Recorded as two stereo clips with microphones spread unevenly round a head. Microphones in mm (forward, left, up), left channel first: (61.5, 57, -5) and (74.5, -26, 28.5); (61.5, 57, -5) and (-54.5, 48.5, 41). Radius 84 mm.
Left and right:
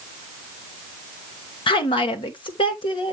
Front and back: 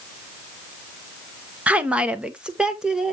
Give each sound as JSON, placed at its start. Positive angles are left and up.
{"t": 1.7, "sound": "a woman speaking", "azimuth_deg": 105, "distance_m": 1.2}